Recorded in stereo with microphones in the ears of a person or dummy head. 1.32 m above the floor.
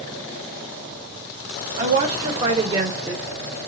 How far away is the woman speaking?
About 1.4 m.